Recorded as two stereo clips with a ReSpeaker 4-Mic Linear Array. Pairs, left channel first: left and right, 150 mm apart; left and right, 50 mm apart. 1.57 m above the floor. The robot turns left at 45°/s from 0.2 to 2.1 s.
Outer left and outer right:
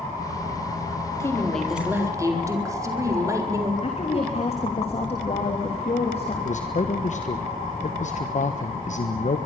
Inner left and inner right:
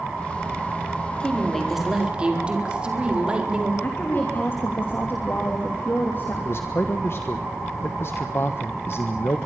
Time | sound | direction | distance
1.2 | a woman speaking | 20° left | 4.5 m
3.8 | a woman speaking | 40° left (ahead or behind) | 3 m
6.5 | a man speaking | 55° left (ahead or behind) | 1.3 m